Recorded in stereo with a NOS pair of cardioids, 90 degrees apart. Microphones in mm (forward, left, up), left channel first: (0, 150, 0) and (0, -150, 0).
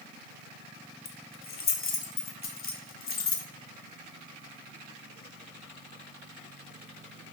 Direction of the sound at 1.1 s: 50° left.